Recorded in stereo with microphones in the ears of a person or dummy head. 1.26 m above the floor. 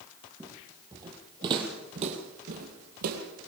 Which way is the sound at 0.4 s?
20° right (ahead or behind).